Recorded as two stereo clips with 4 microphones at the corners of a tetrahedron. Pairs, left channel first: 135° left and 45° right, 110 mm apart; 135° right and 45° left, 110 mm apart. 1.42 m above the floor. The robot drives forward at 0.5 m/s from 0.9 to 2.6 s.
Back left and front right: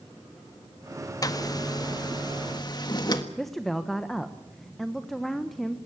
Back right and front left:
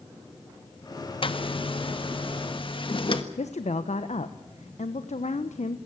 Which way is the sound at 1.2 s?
170° right.